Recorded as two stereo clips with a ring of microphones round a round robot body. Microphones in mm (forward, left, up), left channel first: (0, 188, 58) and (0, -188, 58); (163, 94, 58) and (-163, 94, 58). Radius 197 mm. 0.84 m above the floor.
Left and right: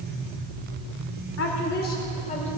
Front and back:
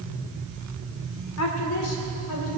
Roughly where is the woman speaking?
Ahead left.